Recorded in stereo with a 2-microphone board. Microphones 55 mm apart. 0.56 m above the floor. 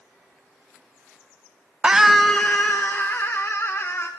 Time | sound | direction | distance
1.8 | a scream | 20° right (ahead or behind) | 0.6 m